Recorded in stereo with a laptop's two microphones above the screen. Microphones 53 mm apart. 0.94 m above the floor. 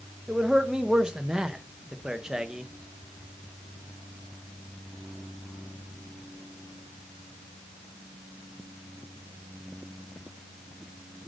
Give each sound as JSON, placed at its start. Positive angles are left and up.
{"t": 0.3, "sound": "a man speaking", "side_deg": -15, "distance_m": 0.7}